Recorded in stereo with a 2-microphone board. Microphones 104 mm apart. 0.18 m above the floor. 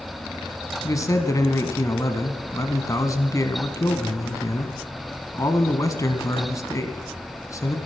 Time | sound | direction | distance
0.8 | a man speaking | 30° left (ahead or behind) | 1.3 m